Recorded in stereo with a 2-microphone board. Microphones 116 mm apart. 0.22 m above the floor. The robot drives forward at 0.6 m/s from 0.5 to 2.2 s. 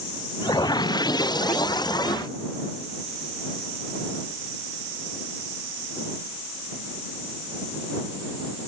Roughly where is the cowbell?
No cowbell in this recording.